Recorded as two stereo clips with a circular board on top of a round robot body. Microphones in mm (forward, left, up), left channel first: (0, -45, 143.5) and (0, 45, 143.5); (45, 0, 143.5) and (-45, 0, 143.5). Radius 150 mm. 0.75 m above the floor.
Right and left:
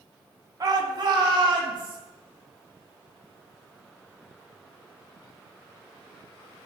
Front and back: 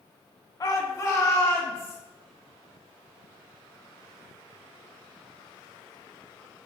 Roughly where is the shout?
Ahead left.